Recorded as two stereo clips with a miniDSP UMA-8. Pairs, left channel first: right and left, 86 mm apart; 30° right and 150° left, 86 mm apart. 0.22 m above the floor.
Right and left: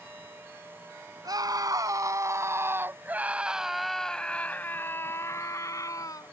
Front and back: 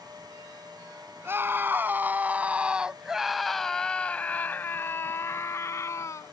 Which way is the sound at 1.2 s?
95° left.